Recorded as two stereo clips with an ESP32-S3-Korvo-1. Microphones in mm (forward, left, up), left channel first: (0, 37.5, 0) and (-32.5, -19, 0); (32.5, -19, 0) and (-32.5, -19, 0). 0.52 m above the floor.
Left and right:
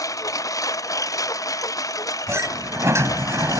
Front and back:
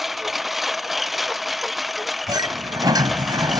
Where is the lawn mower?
90° left.